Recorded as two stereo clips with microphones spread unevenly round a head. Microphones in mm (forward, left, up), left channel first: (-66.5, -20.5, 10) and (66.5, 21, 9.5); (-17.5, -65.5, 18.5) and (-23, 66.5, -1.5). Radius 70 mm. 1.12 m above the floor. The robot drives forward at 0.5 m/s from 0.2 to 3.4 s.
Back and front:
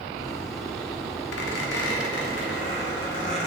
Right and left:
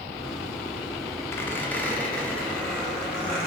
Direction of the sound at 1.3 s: 160° right.